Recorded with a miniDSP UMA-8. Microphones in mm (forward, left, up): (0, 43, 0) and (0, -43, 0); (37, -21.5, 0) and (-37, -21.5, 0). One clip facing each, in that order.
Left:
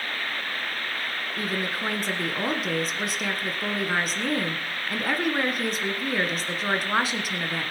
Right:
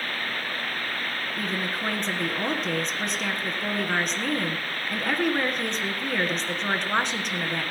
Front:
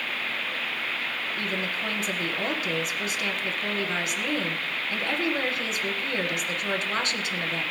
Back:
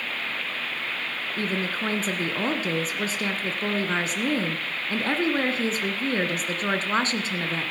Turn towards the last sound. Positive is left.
turn(degrees=175)